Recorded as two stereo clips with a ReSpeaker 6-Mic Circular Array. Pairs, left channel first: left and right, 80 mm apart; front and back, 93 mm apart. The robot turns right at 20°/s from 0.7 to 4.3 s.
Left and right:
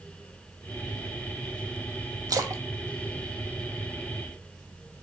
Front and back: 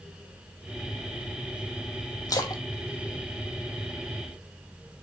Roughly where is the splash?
Ahead right.